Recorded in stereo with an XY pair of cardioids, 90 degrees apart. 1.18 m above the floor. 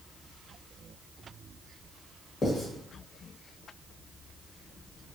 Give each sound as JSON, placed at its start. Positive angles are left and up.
{"t": 2.4, "sound": "writing", "azimuth_deg": 40, "distance_m": 1.2}